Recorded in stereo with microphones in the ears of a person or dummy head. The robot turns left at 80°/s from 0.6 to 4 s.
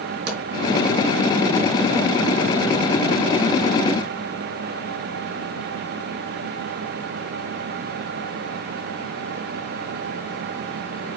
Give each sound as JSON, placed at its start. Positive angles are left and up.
{"t": 0.3, "sound": "a pop", "side_deg": -65, "distance_m": 4.0}